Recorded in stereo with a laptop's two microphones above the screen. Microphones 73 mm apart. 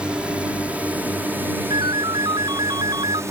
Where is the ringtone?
80° right.